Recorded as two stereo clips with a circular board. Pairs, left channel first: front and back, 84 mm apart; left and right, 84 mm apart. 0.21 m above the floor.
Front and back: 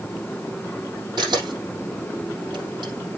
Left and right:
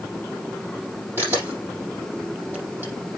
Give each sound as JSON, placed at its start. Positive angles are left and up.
{"t": 1.2, "sound": "a camera shutter", "azimuth_deg": -155, "distance_m": 5.5}